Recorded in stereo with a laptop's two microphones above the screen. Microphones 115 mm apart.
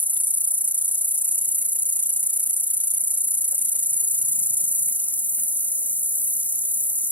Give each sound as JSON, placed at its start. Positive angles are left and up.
{"t": 0.0, "sound": "an insect", "side_deg": -15}